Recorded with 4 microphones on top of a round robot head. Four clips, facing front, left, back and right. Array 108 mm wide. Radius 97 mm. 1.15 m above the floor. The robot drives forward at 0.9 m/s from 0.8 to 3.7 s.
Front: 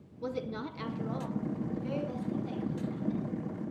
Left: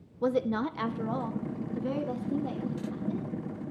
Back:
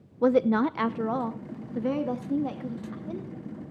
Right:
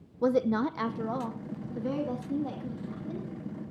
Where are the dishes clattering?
No dishes clattering in this recording.